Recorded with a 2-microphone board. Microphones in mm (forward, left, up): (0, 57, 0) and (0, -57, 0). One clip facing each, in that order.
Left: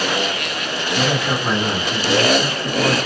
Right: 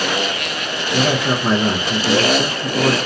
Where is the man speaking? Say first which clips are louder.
Right 3 dB; 40° right (ahead or behind), 0.7 m.